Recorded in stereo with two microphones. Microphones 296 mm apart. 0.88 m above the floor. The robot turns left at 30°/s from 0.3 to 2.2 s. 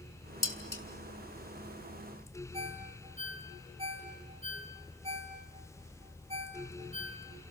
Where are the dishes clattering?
85° left, 2 m; by 0.8 s 70° left (ahead or behind), 2 m.